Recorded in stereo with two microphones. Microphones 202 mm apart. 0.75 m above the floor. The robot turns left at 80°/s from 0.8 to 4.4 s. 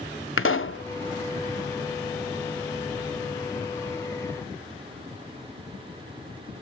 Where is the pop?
85° left, 0.7 m; by 0.8 s 80° left, 0.7 m.